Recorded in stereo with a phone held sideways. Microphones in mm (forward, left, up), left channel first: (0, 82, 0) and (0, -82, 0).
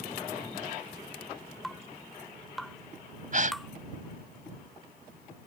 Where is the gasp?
55° right (ahead or behind).